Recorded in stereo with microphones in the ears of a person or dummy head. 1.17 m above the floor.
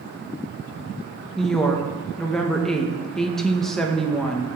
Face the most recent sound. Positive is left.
turn(degrees=0)  # may be behind; listen again after turning